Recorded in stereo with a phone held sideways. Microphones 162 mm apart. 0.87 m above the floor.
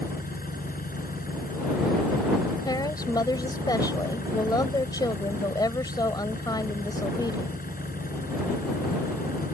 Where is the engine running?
75° left (ahead or behind).